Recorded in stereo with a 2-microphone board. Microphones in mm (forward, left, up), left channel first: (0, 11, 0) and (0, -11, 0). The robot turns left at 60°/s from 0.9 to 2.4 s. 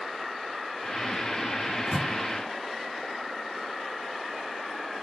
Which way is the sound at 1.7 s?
Centre (ahead or behind).